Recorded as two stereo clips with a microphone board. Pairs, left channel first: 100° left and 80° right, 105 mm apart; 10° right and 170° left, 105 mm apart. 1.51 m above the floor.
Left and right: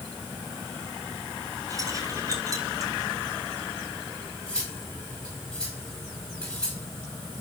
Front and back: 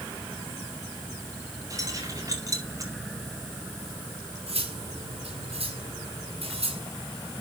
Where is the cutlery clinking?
175° right, 5 m.